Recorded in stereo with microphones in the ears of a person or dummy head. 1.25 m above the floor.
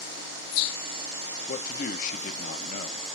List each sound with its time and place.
1.5 s a man speaking: 45° left (ahead or behind), 1.4 m